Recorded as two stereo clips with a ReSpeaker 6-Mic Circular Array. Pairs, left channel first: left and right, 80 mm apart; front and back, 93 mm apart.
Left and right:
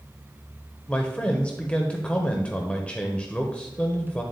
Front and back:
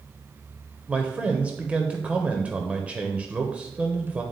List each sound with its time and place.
0.9 s a man speaking: 130° left, 0.9 m